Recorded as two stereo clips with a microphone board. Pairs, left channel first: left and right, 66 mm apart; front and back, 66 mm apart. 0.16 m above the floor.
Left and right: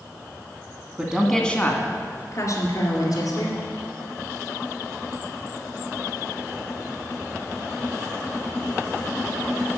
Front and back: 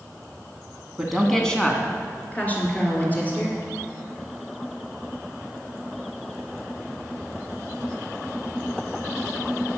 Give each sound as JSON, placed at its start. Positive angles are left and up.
{"t": 1.0, "sound": "a woman speaking", "azimuth_deg": -105, "distance_m": 1.2}